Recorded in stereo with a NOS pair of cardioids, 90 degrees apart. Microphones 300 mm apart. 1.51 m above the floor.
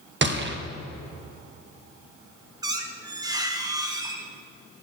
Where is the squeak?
15° right, 1.6 m.